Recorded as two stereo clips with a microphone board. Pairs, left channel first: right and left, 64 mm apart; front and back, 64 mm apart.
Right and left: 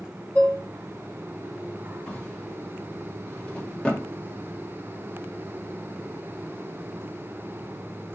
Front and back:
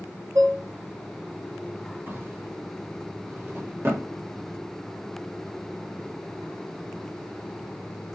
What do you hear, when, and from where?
0.3 s dishes clattering: 155° right, 1.6 m
2.1 s a drawer: 160° right, 1.2 m